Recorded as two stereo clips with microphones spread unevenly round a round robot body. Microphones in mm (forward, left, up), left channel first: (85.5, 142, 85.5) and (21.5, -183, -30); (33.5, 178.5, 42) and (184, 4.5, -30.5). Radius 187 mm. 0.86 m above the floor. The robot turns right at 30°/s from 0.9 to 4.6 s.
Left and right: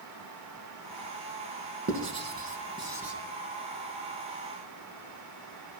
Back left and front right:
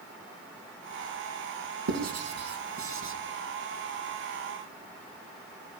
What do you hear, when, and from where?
1.9 s writing: 50° right, 3.5 m; by 3.1 s 10° right, 3.5 m